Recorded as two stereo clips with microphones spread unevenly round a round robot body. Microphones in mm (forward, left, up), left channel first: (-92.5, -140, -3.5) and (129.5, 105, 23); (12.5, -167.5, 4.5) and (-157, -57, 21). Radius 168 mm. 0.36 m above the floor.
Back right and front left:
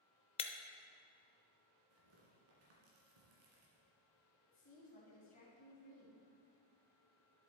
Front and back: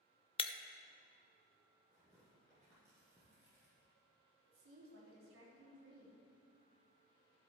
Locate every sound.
0.4 s breaking glass: 75° right, 0.6 m
1.9 s tearing paper: 45° left, 2.5 m
4.5 s a woman speaking: 160° left, 3 m